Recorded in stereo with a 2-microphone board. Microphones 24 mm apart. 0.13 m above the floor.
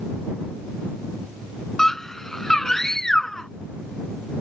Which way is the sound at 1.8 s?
20° left (ahead or behind).